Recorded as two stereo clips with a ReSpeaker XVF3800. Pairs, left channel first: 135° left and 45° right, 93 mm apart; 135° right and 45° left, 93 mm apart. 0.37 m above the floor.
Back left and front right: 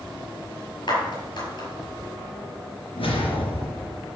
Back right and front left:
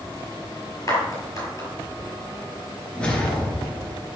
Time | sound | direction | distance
0.9 | a clap | 170° left | 6 m
3.0 | a whoosh | 145° left | 2.5 m